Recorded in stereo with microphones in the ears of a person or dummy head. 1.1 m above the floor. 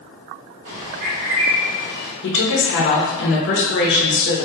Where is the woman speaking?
50° left (ahead or behind), 0.7 m.